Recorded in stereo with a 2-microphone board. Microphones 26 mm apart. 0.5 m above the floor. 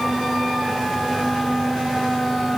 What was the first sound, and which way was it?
Only background noise.